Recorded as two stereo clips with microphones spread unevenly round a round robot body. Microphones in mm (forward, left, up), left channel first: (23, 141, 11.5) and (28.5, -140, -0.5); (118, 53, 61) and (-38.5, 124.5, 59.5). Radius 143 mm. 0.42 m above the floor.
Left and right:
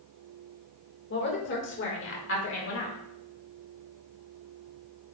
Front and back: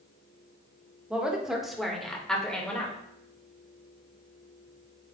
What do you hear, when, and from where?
1.1 s a woman speaking: 75° left, 1.6 m; by 3.0 s 55° left, 2 m